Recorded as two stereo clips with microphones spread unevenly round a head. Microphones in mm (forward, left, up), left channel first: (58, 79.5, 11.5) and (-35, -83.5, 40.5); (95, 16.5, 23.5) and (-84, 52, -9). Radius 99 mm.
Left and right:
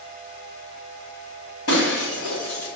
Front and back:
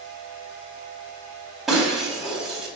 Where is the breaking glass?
75° left, 1.6 m.